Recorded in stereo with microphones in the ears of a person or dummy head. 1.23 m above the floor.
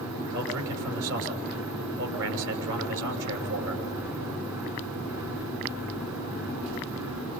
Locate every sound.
0.3 s a man speaking: 65° right (ahead or behind), 6.5 m